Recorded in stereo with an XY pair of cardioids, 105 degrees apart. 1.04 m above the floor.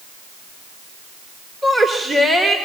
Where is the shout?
25° right, 4 m.